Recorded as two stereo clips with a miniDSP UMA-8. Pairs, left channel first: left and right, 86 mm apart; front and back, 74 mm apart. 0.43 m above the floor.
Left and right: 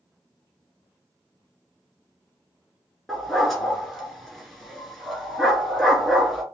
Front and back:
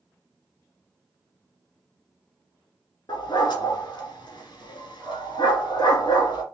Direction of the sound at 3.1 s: Straight ahead.